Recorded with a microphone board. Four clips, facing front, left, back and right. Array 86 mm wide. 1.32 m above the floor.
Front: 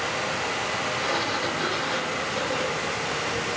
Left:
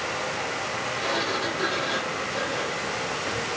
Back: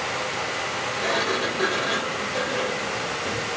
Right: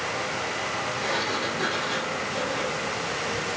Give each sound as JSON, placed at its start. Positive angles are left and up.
{"t": 1.0, "sound": "a sliding door", "azimuth_deg": 175, "distance_m": 4.5}